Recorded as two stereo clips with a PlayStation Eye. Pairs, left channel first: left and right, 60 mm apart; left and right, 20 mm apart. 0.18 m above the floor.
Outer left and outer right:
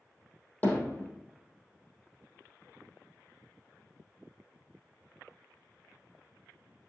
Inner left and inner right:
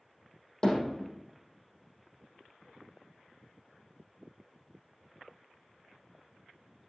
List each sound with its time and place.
0.6 s hammering: 25° left (ahead or behind), 3.5 m